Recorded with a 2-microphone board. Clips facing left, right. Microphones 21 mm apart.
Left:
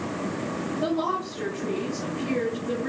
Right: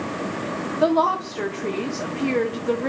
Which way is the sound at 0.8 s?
90° right.